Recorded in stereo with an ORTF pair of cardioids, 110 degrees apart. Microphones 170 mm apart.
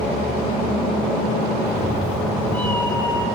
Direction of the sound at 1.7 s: 5° right.